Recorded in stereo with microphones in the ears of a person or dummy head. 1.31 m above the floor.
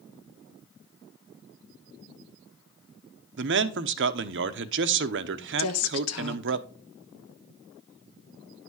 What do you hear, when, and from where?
3.4 s a man speaking: 60° right (ahead or behind), 0.8 m
5.6 s a woman speaking: 80° left, 1.4 m